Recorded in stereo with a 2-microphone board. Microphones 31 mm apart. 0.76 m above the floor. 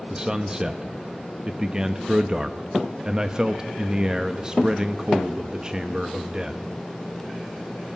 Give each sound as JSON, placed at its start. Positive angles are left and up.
{"t": 0.1, "sound": "a man speaking", "side_deg": -25, "distance_m": 0.9}